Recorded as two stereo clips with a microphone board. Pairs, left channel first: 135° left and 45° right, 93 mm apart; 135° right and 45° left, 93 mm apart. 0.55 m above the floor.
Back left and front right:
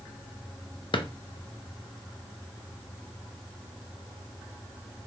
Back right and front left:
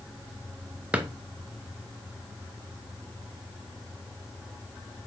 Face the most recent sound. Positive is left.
turn(degrees=120)